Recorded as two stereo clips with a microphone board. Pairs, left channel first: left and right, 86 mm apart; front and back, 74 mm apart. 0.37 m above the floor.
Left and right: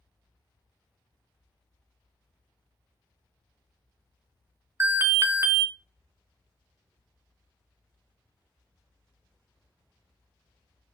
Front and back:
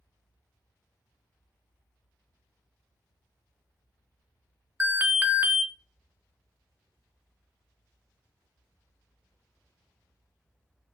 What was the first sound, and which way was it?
An alarm, 130° right.